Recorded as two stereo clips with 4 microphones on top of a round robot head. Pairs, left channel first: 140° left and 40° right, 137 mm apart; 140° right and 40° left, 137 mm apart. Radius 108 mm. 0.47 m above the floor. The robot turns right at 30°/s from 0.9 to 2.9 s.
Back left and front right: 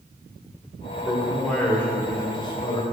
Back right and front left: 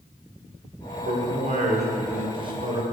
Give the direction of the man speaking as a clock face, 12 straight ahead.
11 o'clock.